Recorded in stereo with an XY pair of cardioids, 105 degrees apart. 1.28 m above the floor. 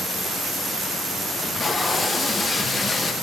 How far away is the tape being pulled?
About 0.9 m.